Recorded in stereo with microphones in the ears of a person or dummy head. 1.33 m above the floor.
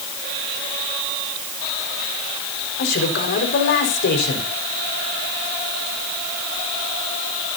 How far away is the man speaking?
About 4.5 m.